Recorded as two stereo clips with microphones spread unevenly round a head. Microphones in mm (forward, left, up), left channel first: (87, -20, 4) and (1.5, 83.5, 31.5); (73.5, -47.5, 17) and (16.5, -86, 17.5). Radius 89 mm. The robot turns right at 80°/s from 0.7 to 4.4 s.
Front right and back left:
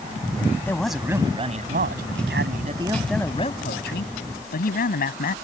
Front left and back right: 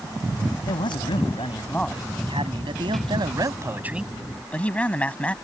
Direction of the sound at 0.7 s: 25° left.